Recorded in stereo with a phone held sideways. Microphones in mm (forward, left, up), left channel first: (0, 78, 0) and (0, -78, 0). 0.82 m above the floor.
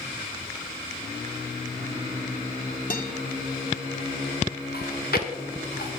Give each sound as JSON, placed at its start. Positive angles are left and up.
{"t": 2.9, "sound": "a guitar", "side_deg": 65, "distance_m": 1.2}
{"t": 4.7, "sound": "chewing", "side_deg": 80, "distance_m": 1.9}